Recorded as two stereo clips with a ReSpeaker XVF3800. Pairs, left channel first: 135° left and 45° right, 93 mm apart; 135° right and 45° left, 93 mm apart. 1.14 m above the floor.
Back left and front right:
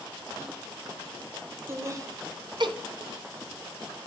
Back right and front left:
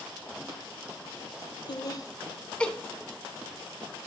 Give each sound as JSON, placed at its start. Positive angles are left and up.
{"t": 1.7, "sound": "laughter", "azimuth_deg": -105, "distance_m": 0.8}